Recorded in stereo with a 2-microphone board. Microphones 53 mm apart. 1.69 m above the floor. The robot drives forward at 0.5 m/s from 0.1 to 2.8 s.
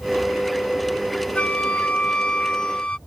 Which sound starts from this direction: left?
A flute, at 1.4 s.